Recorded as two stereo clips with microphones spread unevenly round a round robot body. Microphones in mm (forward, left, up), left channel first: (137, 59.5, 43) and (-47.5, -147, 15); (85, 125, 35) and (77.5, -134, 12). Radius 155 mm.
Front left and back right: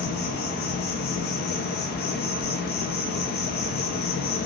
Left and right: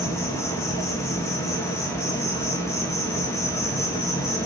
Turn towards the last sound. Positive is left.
turn(degrees=10)